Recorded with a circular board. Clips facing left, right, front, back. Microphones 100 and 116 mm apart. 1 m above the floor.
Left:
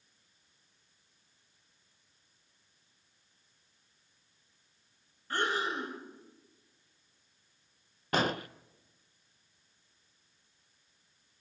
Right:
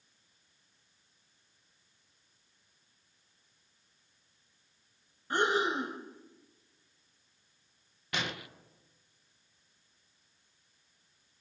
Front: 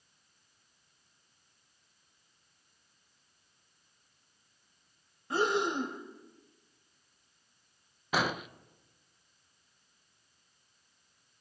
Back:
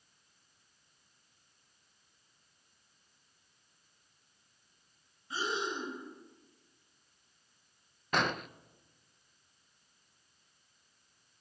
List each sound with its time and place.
5.3 s breathing: 20° right, 2 m
8.1 s an explosion: 80° left, 0.6 m